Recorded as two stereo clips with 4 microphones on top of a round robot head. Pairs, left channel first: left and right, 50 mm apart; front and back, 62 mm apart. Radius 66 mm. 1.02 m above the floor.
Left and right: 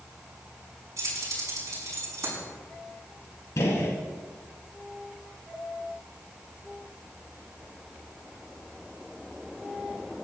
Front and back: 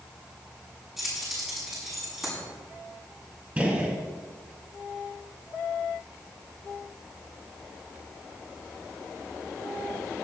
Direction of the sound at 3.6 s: 110° left.